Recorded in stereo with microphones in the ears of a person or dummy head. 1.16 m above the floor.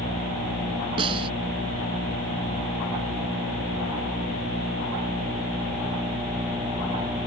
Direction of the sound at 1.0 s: 30° right (ahead or behind).